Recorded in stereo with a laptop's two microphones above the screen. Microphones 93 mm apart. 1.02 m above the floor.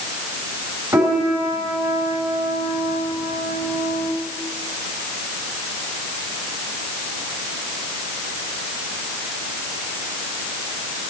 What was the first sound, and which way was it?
A piano, 40° right (ahead or behind).